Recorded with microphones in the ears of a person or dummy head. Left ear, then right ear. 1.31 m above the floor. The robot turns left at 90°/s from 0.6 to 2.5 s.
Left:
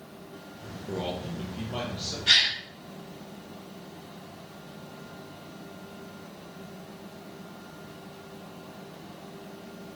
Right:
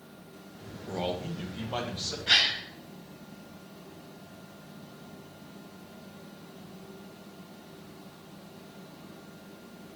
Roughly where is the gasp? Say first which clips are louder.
Left 2 dB; left.